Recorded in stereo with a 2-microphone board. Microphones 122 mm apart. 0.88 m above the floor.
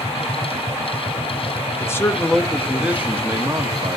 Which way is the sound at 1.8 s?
25° left (ahead or behind).